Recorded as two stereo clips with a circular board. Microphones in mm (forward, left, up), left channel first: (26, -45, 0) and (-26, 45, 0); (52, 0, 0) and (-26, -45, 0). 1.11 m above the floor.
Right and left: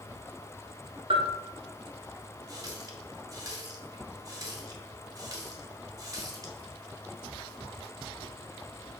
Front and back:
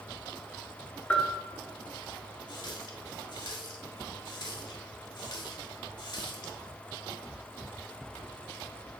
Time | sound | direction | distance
1.1 | a bell | 105° left | 1.1 m
2.5 | a running tap | 65° left | 1.5 m